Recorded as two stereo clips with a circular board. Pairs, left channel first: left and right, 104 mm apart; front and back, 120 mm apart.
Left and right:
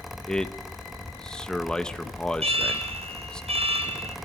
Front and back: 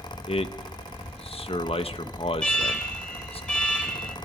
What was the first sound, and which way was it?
A man speaking, 10° left.